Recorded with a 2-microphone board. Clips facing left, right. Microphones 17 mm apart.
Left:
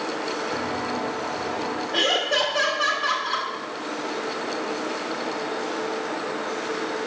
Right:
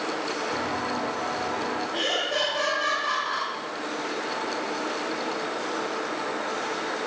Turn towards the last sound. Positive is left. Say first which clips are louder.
# left 6 dB
turn(degrees=25)  # may be behind; listen again after turning